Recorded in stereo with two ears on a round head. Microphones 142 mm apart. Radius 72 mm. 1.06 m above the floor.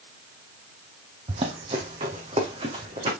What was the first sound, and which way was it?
Running footsteps, 40° right (ahead or behind).